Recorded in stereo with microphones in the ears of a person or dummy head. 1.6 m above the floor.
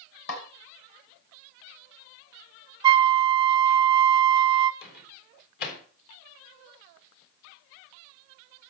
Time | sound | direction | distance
0.3 | a snare drum | 45° left (ahead or behind) | 3.5 m
2.8 | a flute | 30° right (ahead or behind) | 0.5 m
4.8 | a microwave | 55° left (ahead or behind) | 3.5 m